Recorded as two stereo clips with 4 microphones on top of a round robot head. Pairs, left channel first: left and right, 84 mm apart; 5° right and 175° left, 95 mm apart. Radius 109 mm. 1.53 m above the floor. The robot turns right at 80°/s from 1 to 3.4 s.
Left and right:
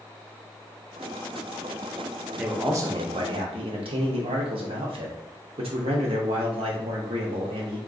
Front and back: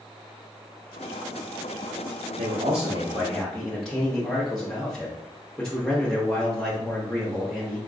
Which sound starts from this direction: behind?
A man speaking, at 2.4 s.